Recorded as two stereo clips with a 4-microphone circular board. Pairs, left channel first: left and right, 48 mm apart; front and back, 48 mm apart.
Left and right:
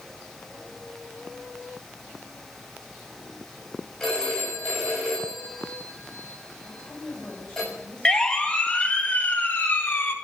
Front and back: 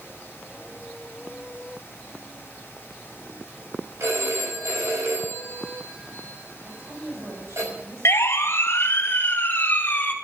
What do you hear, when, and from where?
4.0 s a phone ringing: 175° left, 6.5 m
6.6 s a woman speaking: 155° left, 8 m
8.1 s a siren: 15° left, 2 m; by 10.1 s 55° left, 2.5 m